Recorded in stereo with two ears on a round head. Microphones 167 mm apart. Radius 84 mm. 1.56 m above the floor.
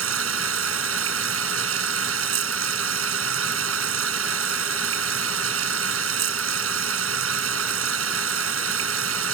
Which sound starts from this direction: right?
Running water, at 0.0 s.